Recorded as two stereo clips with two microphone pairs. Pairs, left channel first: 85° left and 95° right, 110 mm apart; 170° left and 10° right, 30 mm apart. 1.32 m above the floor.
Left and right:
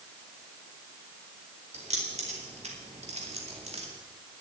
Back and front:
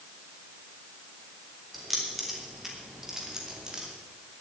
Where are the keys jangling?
100° right, 3.5 m; by 3.9 s 75° right, 2.5 m.